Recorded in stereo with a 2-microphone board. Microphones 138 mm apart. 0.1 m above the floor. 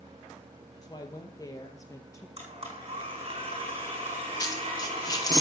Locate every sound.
0.8 s a woman speaking: 30° left (ahead or behind), 2.5 m; by 2.3 s 20° left (ahead or behind), 1.9 m
2.4 s a blender: 45° right (ahead or behind), 5 m
4.4 s a dropped coin: 30° left (ahead or behind), 1.5 m